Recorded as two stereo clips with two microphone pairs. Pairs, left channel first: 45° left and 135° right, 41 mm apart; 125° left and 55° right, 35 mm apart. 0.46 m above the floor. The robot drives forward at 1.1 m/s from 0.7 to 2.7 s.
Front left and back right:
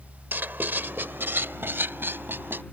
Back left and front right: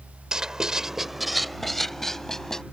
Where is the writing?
120° right; by 2.6 s 160° right.